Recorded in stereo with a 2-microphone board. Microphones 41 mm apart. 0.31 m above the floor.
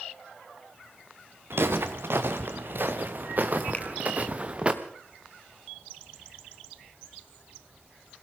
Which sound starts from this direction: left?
A finger snap, at 3.7 s.